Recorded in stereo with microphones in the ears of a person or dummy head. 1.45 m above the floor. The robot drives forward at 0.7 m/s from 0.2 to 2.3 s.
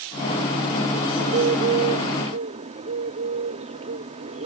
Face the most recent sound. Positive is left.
turn(degrees=-35)  # may be behind; listen again after turning